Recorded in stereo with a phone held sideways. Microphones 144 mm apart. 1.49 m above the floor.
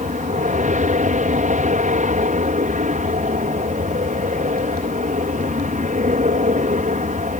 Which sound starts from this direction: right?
An aircraft, at 0.0 s.